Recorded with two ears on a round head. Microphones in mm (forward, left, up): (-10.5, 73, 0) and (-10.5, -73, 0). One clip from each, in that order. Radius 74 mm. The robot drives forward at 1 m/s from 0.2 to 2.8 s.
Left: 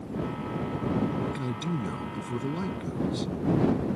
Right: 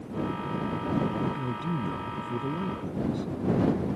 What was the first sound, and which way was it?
A man speaking, 75° left (ahead or behind).